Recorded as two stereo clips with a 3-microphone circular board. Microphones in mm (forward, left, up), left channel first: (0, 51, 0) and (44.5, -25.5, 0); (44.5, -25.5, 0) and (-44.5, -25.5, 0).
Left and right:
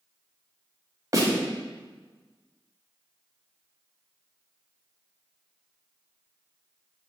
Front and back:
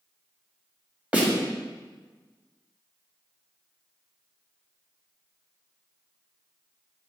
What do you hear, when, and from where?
1.1 s a snare drum: 110° right, 2.0 m